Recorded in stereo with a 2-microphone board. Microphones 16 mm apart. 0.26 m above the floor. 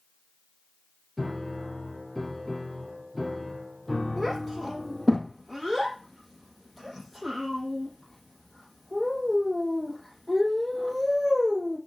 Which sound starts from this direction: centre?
A child speaking, at 4.2 s.